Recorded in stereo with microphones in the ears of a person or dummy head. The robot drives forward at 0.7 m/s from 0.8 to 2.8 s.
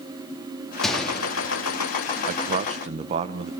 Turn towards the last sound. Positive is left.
turn(degrees=-30)  # may be behind; listen again after turning